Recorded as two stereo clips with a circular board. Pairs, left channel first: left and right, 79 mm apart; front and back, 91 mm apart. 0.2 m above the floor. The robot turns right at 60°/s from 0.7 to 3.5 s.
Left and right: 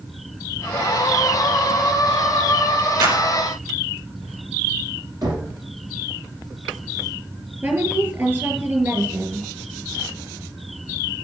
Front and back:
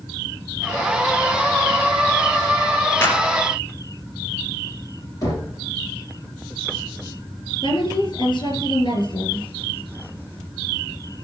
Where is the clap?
65° right, 2.5 m; by 3.2 s 50° right, 2.5 m.